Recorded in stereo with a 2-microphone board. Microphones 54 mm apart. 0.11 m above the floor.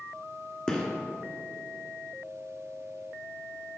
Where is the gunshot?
15° left (ahead or behind), 1.3 m.